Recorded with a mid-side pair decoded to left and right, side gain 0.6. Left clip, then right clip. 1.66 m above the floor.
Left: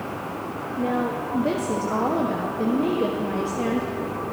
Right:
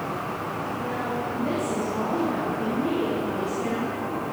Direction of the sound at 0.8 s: 50° left.